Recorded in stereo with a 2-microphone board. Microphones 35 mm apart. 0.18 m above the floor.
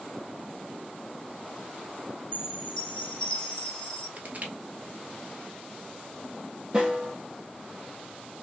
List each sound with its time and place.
2.3 s a chime: 20° left (ahead or behind), 1.7 m
4.2 s crushing: 40° right (ahead or behind), 1.2 m
6.7 s a snare drum: 25° right (ahead or behind), 3.5 m